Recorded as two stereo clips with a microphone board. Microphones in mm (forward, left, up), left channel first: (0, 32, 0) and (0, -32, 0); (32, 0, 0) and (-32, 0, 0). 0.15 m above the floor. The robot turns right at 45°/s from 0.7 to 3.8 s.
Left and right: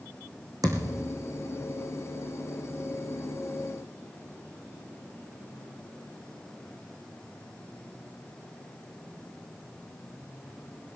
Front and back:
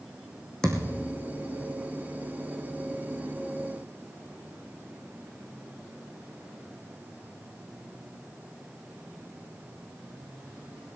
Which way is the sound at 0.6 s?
80° right.